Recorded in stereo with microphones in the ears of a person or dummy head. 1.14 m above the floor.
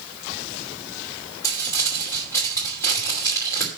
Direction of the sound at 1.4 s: 15° left (ahead or behind).